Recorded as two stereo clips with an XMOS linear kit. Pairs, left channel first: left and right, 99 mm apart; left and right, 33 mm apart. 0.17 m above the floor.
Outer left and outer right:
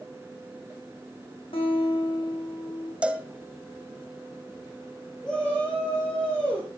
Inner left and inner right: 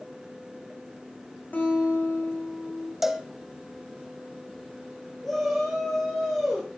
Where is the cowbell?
10° right (ahead or behind), 1.6 m.